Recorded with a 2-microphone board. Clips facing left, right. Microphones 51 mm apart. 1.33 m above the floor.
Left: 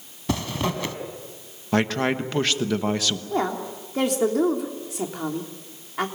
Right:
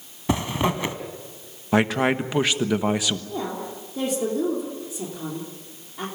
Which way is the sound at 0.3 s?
25° right (ahead or behind).